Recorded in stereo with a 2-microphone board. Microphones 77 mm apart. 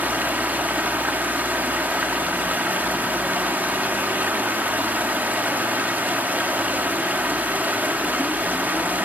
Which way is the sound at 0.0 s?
20° right (ahead or behind).